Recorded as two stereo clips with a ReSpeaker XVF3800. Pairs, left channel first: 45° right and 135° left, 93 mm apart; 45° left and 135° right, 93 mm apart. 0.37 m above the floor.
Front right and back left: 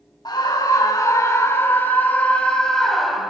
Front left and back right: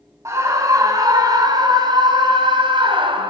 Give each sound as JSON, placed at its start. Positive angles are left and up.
{"t": 0.2, "sound": "a scream", "azimuth_deg": -80, "distance_m": 2.5}